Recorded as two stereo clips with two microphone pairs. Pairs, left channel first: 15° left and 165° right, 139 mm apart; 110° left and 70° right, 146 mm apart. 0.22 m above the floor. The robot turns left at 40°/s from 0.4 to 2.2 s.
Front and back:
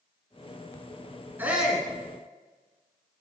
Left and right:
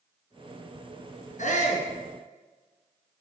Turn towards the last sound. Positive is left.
turn(degrees=85)